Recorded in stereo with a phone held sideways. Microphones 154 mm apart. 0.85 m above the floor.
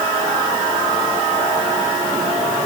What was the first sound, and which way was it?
Only background noise.